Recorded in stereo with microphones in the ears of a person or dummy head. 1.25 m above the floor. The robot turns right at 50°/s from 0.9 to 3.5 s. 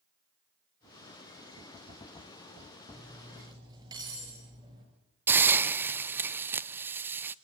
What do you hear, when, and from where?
2.9 s cutlery clinking: 10° left (ahead or behind), 7 m; by 4.8 s 20° right (ahead or behind), 7 m
5.3 s a hiss: 10° right (ahead or behind), 0.6 m